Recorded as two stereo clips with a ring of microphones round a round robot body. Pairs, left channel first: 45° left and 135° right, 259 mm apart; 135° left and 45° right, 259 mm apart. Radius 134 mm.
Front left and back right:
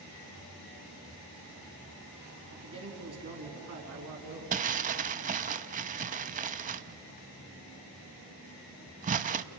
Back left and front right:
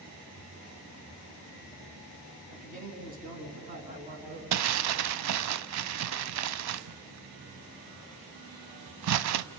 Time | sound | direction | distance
2.5 | a man speaking | 105° right | 3.5 m
4.5 | crumpling | 75° right | 0.6 m